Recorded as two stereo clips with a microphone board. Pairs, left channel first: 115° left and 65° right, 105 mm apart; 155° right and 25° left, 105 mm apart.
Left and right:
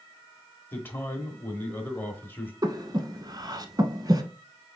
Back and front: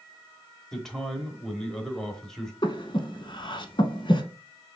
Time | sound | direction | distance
0.7 | a man speaking | 125° left | 0.9 m
2.6 | breathing | 120° right | 0.6 m